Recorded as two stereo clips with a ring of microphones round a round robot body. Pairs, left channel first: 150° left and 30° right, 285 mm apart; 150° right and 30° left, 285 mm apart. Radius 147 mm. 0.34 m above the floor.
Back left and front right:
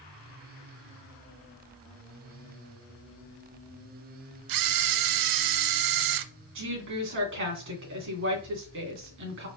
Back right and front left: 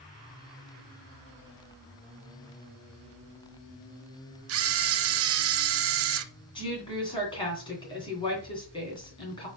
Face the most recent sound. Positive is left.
turn(degrees=-75)